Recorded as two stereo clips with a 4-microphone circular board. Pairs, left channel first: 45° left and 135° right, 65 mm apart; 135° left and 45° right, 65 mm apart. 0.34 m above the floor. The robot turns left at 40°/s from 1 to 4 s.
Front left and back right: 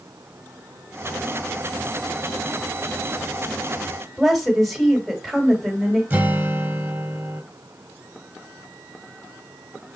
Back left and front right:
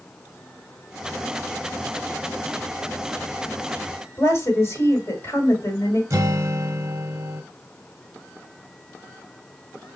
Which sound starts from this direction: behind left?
A woman speaking, at 4.2 s.